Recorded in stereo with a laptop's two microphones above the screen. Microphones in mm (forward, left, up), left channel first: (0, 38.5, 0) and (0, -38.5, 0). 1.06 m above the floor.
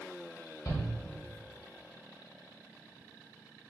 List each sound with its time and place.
0.7 s a shout: 50° left (ahead or behind), 1.7 m